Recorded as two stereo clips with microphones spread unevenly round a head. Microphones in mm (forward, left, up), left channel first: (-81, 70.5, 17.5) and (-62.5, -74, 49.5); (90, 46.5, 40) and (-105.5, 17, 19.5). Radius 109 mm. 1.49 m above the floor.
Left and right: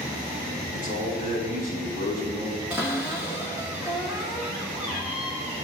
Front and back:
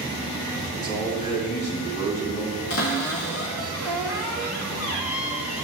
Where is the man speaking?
50° right, 3 m; by 2.6 s 25° right, 2.5 m.